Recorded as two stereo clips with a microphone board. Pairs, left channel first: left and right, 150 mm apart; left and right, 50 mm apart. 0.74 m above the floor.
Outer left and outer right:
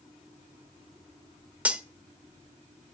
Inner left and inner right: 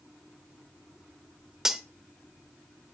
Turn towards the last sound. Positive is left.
turn(degrees=-10)  # may be behind; listen again after turning